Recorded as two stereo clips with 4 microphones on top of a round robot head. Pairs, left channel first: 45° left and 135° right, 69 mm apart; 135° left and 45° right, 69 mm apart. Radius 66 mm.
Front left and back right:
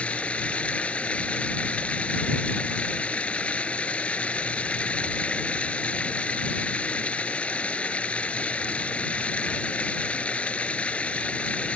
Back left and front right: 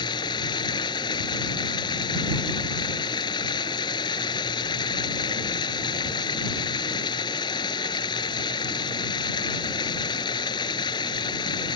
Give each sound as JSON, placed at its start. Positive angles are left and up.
{"t": 0.0, "sound": "running water", "azimuth_deg": 120}